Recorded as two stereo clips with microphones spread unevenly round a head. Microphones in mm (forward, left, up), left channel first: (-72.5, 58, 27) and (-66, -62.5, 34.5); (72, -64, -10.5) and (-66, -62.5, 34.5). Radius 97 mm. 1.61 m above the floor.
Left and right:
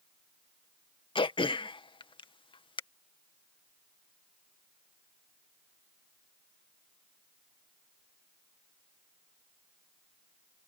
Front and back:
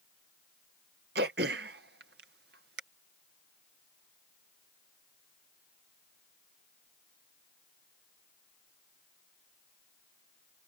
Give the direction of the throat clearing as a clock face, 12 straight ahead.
7 o'clock.